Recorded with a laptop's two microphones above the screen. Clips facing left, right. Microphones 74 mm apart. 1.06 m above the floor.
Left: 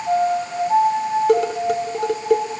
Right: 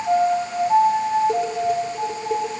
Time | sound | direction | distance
1.3 | dishes clattering | 85° left | 2.5 m